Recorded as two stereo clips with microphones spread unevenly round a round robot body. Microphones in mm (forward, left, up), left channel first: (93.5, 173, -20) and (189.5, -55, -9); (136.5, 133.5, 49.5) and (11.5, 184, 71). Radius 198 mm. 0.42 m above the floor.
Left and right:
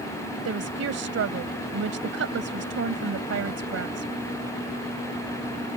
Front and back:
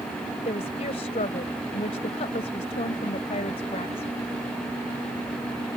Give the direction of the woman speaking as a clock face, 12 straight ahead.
2 o'clock.